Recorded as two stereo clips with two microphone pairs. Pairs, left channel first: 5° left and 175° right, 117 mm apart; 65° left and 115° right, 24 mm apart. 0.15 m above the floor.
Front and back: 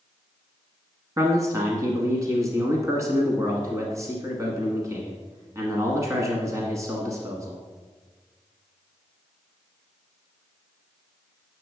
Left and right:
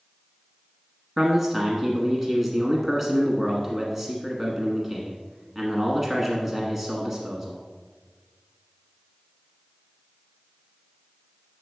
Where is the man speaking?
175° left, 1.2 m.